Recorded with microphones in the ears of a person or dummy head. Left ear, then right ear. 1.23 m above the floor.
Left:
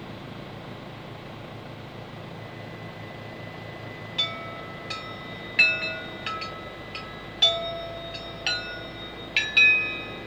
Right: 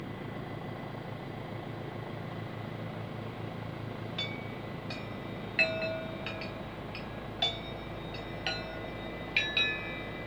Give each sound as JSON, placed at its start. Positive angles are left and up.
{"t": 4.2, "sound": "a chime", "side_deg": 0, "distance_m": 0.8}